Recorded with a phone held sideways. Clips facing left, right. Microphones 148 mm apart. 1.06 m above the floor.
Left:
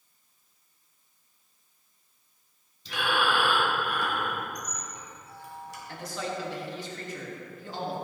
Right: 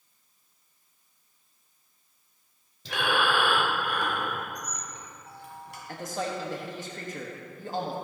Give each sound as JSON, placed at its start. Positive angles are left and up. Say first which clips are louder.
{"t": 2.9, "sound": "breathing", "louder": "right 1 dB", "side_deg": -75, "distance_m": 1.8}
{"t": 4.5, "sound": "a squeak", "louder": "even", "side_deg": -65, "distance_m": 3.0}
{"t": 5.9, "sound": "a man speaking", "louder": "right 2 dB", "side_deg": -45, "distance_m": 1.4}